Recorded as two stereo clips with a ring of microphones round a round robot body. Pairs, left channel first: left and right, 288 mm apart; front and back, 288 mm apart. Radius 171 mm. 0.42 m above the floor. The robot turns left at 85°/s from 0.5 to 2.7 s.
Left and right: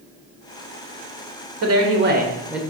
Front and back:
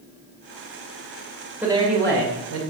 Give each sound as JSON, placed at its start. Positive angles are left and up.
{"t": 1.6, "sound": "a man speaking", "azimuth_deg": -95, "distance_m": 1.9}